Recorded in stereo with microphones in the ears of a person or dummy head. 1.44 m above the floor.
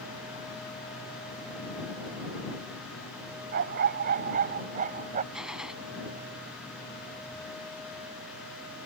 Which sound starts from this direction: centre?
A gunshot, at 5.3 s.